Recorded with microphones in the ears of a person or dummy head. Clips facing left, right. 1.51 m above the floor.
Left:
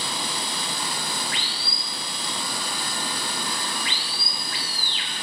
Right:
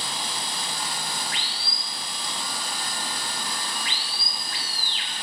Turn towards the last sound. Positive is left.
turn(degrees=60)  # may be behind; listen again after turning